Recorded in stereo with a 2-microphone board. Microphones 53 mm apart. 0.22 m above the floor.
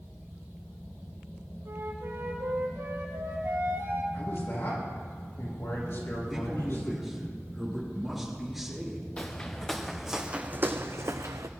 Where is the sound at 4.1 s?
55° left (ahead or behind), 5 m.